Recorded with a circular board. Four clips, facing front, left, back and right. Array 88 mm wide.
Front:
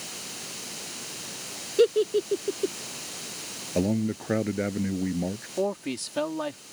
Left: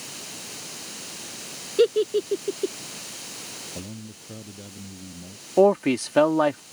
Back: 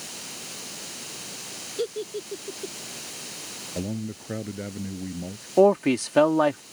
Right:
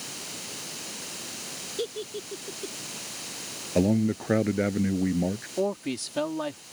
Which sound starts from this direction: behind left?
A man speaking, at 5.6 s.